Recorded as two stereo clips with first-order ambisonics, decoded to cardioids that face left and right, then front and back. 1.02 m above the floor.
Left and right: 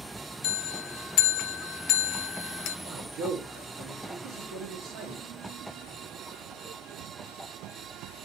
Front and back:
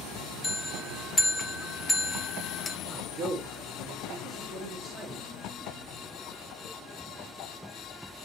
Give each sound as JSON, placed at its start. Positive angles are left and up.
{"t": 0.4, "sound": "a bell", "azimuth_deg": 75, "distance_m": 0.6}
{"t": 2.9, "sound": "a man speaking", "azimuth_deg": -120, "distance_m": 1.2}